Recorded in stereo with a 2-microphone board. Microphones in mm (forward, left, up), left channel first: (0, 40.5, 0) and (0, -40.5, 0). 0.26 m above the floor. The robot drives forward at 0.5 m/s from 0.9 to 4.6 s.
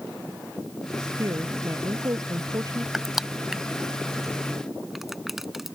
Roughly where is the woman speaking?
Right.